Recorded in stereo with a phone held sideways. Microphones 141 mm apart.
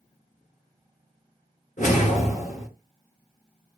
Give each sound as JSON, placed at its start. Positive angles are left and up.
{"t": 1.8, "sound": "a whoosh", "side_deg": 70, "distance_m": 2.5}